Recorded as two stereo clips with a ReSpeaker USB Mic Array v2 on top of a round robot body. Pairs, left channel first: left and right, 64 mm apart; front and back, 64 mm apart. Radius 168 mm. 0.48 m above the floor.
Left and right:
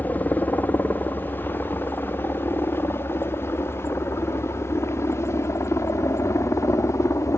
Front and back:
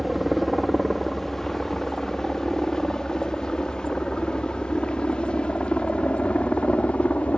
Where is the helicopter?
90° left; by 7.4 s 65° left.